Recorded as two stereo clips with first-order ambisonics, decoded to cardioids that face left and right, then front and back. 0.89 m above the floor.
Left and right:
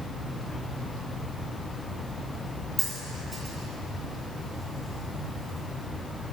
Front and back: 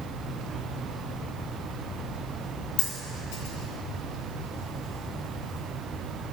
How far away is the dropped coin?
About 2.5 m.